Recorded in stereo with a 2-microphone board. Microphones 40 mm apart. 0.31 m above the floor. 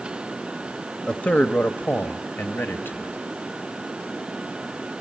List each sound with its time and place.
1.1 s a man speaking: 25° left (ahead or behind), 1.0 m; by 3.2 s 55° left (ahead or behind), 2 m